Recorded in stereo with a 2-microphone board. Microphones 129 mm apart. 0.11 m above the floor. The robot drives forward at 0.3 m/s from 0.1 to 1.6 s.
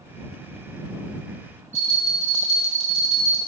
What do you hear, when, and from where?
1.7 s a bell: 65° left (ahead or behind), 1.4 m